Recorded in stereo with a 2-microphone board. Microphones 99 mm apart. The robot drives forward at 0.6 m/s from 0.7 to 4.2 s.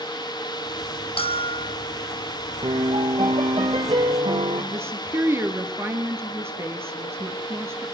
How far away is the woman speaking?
About 2 m.